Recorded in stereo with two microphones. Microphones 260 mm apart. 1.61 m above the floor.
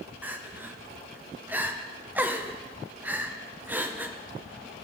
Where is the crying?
5° right (ahead or behind), 0.8 m.